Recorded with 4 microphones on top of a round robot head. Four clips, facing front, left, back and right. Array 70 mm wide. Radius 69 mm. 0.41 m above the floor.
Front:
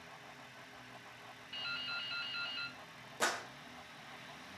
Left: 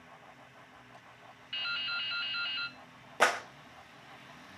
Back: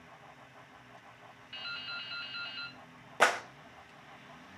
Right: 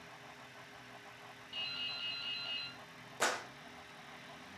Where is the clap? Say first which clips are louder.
Left 8 dB, back 9 dB; 140° left, 1.8 m.